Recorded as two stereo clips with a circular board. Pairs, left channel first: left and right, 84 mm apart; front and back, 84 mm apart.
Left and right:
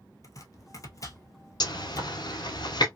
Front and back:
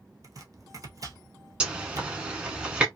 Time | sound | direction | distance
0.2 | chopping | 135° left | 0.9 m
1.6 | a zipper | 105° left | 1.0 m